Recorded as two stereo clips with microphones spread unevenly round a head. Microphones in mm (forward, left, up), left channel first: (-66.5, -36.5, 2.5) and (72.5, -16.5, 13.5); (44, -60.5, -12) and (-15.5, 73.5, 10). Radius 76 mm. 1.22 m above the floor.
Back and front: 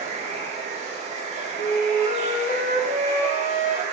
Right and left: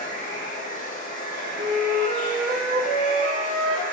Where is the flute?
145° left, 1.0 m.